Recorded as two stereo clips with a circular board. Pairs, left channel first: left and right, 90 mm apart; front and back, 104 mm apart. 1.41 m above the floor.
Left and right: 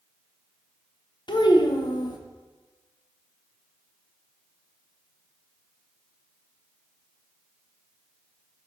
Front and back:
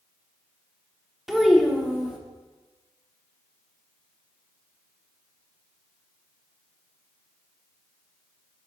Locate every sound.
1.3 s a child speaking: 95° left, 0.6 m